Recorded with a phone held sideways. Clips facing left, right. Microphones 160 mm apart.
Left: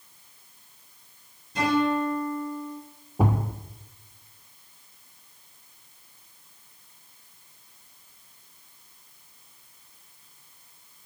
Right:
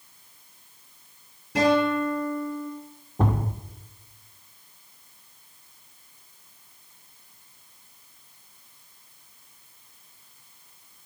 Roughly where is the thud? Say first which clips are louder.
Left 1 dB; centre.